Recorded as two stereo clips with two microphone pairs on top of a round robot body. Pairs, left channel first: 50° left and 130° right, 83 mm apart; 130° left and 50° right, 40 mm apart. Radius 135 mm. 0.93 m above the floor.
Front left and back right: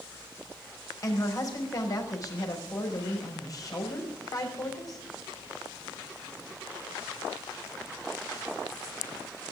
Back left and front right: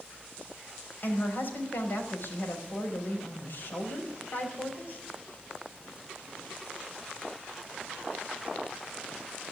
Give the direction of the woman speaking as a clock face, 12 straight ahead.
9 o'clock.